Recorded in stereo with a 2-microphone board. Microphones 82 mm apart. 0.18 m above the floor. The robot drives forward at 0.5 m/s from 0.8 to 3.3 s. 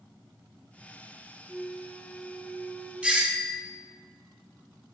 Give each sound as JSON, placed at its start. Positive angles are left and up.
{"t": 1.5, "sound": "a flute", "side_deg": 0, "distance_m": 1.6}
{"t": 3.0, "sound": "a doorbell", "side_deg": -15, "distance_m": 1.8}